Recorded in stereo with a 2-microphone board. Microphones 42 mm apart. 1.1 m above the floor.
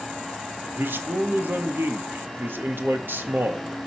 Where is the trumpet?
I don't hear a trumpet.